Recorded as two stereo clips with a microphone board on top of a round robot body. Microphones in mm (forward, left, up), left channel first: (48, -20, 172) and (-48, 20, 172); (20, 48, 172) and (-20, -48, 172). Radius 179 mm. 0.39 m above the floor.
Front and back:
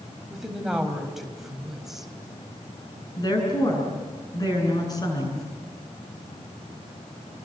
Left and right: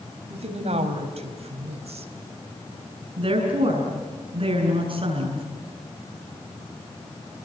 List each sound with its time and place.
0.3 s a woman speaking: 115° right, 4.5 m
3.2 s a woman speaking: 75° right, 8 m